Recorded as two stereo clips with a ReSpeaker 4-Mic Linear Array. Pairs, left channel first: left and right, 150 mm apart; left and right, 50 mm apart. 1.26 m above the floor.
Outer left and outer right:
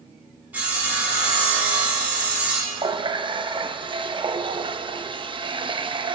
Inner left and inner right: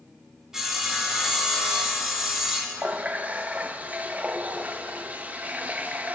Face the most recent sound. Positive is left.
turn(degrees=-35)  # may be behind; listen again after turning